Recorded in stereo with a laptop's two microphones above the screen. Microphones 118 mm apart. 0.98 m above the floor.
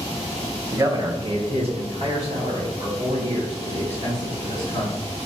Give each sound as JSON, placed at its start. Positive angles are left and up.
{"t": 0.7, "sound": "a man speaking", "side_deg": -20, "distance_m": 0.9}